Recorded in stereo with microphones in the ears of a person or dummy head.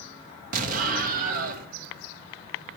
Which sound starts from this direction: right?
An explosion, at 0.5 s.